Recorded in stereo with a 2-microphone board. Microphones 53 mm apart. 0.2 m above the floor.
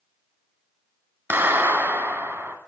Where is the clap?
40° right (ahead or behind), 1.6 m.